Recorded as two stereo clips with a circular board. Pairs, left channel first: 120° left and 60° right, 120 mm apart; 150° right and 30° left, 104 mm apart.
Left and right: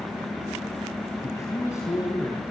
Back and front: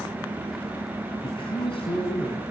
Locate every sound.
1.2 s a man speaking: 175° right, 3 m